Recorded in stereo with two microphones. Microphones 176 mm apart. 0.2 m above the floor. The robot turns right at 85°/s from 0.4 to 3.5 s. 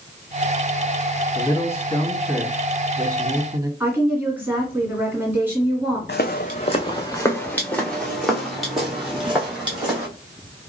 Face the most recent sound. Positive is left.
turn(degrees=-5)  # may be behind; listen again after turning